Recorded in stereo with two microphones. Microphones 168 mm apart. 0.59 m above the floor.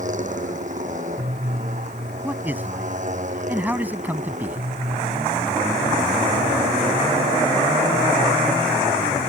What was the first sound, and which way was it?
A motorcycle, 50° right (ahead or behind).